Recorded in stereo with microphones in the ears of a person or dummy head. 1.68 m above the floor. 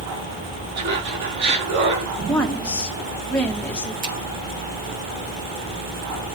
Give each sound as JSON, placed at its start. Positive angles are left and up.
{"t": 0.8, "sound": "laughter", "side_deg": -55, "distance_m": 4.0}
{"t": 2.3, "sound": "a woman speaking", "side_deg": 5, "distance_m": 2.0}
{"t": 4.0, "sound": "a finger snap", "side_deg": -55, "distance_m": 7.0}